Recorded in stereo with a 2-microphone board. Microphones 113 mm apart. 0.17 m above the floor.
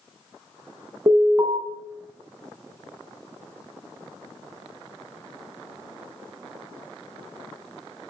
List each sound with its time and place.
1.1 s an alarm: 30° right (ahead or behind), 0.8 m